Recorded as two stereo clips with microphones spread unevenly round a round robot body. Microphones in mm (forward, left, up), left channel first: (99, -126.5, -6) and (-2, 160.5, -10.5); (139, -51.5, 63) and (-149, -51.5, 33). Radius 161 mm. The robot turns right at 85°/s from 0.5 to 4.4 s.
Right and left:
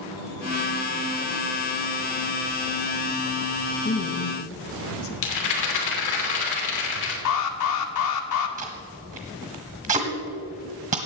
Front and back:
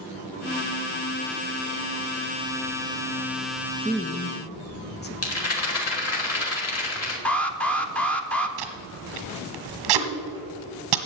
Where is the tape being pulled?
Straight behind, 1.3 m.